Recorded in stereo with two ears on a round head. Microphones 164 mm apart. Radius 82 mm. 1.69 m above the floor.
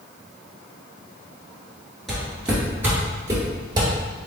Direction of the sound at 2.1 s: Centre (ahead or behind).